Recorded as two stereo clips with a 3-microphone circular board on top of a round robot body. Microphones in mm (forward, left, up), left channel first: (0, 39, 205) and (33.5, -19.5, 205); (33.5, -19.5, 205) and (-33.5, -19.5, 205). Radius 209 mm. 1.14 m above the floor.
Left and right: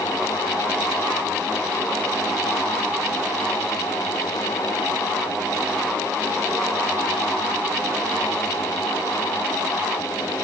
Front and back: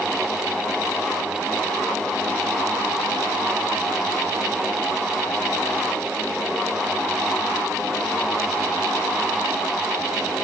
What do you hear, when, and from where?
Only background noise.